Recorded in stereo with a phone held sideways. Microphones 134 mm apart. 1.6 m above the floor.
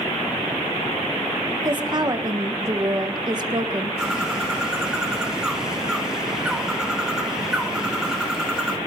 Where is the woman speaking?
30° right (ahead or behind), 1.4 m.